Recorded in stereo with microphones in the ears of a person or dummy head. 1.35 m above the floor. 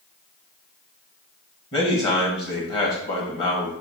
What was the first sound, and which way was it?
A man speaking, 35° left (ahead or behind).